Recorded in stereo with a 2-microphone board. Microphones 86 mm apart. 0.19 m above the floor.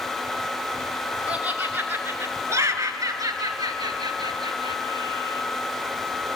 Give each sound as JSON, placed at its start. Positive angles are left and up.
{"t": 1.3, "sound": "laughter", "side_deg": -15, "distance_m": 2.0}